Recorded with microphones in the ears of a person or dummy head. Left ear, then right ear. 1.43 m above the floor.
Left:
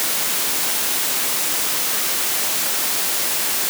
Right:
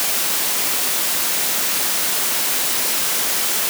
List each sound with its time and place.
Only background noise.